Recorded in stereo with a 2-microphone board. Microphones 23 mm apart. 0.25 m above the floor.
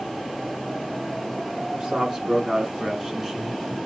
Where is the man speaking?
40° right (ahead or behind), 3 m; by 3.8 s 5° right (ahead or behind), 1.3 m.